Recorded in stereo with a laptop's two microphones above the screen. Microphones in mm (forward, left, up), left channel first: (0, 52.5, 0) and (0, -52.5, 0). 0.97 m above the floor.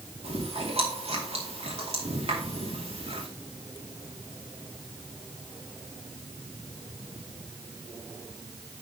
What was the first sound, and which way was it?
Chewing, 70° right (ahead or behind).